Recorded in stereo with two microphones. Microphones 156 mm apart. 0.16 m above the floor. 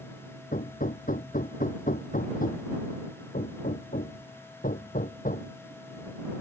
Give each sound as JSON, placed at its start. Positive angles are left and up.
{"t": 0.5, "sound": "hammering", "side_deg": 60}